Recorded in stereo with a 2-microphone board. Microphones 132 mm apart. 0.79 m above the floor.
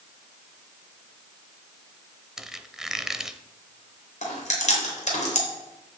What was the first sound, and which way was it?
A squeak, 5° right (ahead or behind).